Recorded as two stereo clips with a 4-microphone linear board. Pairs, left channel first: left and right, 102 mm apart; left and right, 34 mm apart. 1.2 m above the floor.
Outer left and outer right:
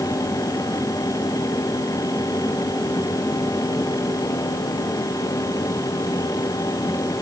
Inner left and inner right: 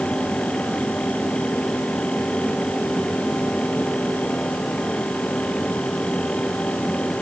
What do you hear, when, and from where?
Only background noise.